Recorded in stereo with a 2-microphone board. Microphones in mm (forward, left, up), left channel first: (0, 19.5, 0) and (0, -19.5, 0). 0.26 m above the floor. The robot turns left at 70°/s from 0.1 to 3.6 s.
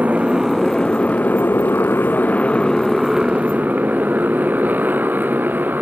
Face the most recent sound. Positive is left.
turn(degrees=-60)  # may be behind; listen again after turning